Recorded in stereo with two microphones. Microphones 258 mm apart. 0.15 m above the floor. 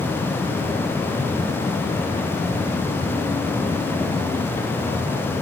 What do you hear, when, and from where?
Only background noise.